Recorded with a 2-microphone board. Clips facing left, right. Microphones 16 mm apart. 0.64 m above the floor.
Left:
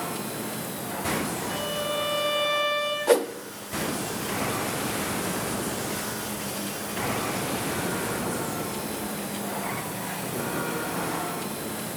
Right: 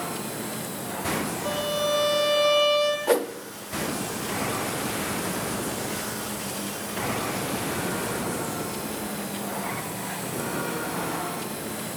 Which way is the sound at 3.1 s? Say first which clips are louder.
Left 6 dB; 25° left (ahead or behind).